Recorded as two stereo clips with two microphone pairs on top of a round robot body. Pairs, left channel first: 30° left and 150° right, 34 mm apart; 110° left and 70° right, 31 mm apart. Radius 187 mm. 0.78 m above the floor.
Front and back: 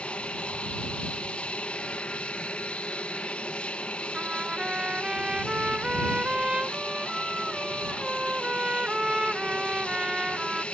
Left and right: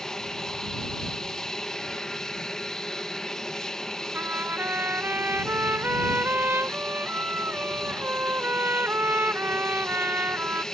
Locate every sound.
0.0 s an aircraft: 25° left
4.1 s a trumpet: 85° right